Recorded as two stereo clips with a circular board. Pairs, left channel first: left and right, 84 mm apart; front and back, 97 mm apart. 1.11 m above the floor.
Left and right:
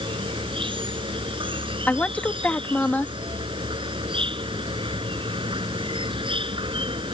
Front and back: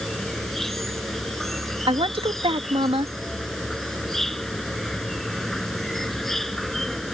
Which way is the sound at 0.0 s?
85° right.